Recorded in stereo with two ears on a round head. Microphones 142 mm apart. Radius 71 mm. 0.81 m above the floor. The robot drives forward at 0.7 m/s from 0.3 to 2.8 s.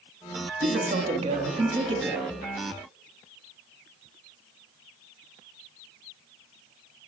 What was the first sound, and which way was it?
A man speaking, 45° right (ahead or behind).